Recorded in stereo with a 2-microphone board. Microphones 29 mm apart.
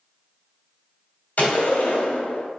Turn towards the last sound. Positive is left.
turn(degrees=60)  # may be behind; listen again after turning